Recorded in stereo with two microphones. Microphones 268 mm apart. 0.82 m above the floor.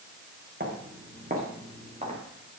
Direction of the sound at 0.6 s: 40° right (ahead or behind).